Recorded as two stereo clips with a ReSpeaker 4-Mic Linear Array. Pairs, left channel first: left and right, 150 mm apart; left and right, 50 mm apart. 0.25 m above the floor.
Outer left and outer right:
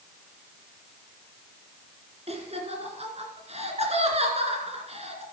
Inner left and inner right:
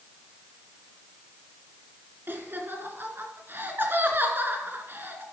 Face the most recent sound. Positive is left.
turn(degrees=-45)  # may be behind; listen again after turning